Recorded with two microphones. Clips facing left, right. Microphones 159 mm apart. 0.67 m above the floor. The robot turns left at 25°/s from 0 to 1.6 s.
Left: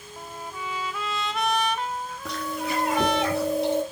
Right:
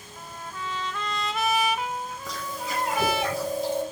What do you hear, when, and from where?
0.2 s a trumpet: 30° left, 0.7 m; by 3.2 s 10° right, 0.7 m
2.2 s chewing: 75° left (ahead or behind), 4.5 m